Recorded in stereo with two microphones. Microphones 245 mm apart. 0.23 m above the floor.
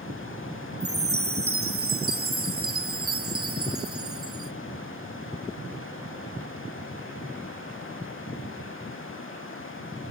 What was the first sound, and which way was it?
A chime, 65° right (ahead or behind).